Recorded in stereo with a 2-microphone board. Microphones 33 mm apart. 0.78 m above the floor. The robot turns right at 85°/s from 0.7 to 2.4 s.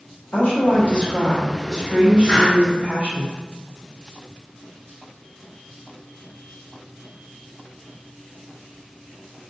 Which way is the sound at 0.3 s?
90° left.